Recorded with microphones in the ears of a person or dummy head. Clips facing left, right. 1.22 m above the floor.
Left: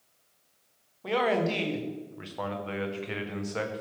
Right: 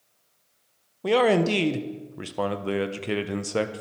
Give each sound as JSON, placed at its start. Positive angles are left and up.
{"t": 1.0, "sound": "a man speaking", "side_deg": -55, "distance_m": 0.6}